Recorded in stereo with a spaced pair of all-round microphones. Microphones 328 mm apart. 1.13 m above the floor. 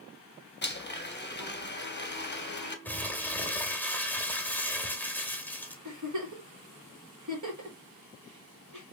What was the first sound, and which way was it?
A blender, 30° left (ahead or behind).